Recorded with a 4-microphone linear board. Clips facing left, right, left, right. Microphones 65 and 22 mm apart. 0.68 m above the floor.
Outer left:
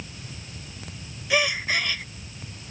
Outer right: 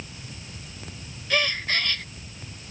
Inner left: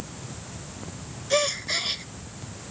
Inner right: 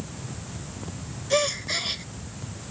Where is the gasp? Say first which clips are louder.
Outer left 2 dB, even; 10° left (ahead or behind).